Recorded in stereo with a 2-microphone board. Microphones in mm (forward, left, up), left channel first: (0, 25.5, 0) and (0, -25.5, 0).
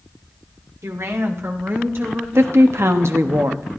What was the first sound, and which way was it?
A woman speaking, 70° right (ahead or behind).